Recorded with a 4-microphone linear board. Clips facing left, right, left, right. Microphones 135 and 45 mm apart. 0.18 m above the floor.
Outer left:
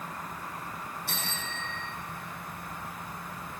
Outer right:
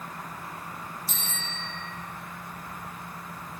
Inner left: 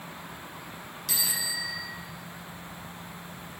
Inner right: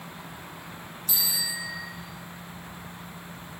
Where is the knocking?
I don't hear knocking.